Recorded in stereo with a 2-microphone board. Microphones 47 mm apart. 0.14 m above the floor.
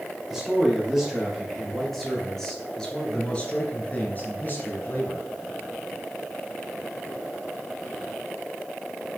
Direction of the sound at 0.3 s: 10° right (ahead or behind).